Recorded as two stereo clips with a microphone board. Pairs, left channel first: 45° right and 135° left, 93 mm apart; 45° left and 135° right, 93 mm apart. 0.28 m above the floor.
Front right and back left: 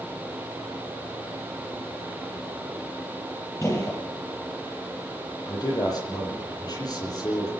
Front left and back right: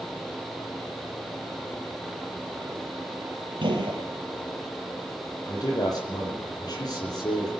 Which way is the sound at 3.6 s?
105° right.